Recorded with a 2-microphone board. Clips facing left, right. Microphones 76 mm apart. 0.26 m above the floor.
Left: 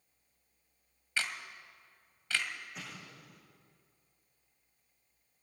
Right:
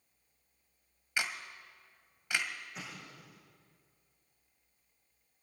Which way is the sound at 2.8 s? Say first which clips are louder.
Right 1 dB; centre (ahead or behind).